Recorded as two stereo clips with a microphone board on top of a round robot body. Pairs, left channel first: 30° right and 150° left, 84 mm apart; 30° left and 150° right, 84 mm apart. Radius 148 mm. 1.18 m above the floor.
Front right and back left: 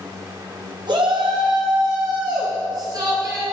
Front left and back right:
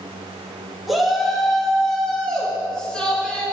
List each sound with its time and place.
0.9 s a shout: 120° left, 3 m; by 3.4 s 105° left, 4 m